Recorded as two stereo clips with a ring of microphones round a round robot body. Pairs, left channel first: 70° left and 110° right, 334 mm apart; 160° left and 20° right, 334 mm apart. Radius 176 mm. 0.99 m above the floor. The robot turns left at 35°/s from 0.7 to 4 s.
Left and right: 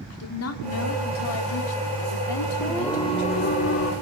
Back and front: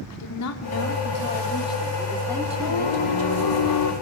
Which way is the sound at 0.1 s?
115° left.